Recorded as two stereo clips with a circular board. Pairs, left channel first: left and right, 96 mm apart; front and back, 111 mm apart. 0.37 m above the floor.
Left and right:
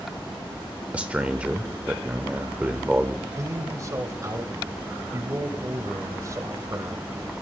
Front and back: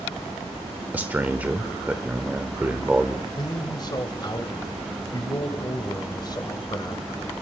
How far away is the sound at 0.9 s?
About 0.9 m.